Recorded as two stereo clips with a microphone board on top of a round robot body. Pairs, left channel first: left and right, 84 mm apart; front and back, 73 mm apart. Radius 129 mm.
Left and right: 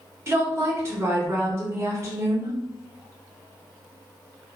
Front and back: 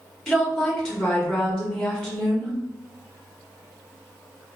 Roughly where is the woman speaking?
Right.